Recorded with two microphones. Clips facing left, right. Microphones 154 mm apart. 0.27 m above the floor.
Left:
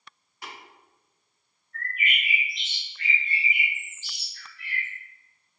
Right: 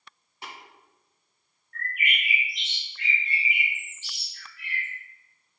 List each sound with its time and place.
0.4 s tapping: 30° right (ahead or behind), 1.9 m
1.7 s a bird: 80° right, 1.8 m